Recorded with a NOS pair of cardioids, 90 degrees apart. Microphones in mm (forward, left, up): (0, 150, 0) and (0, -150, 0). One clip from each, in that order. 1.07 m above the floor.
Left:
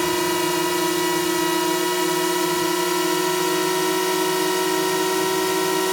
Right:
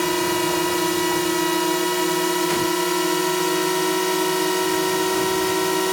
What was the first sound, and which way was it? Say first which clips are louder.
A drone: even; straight ahead.